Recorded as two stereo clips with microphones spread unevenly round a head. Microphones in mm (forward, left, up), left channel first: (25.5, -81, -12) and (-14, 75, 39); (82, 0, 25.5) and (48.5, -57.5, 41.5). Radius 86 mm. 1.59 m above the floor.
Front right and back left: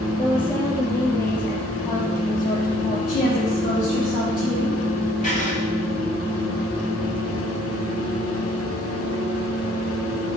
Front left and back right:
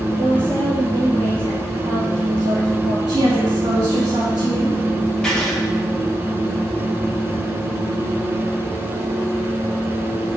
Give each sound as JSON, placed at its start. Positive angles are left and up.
{"t": 0.2, "sound": "a woman speaking", "azimuth_deg": -150, "distance_m": 3.0}
{"t": 3.1, "sound": "a woman speaking", "azimuth_deg": -115, "distance_m": 3.0}
{"t": 5.2, "sound": "writing", "azimuth_deg": -25, "distance_m": 2.0}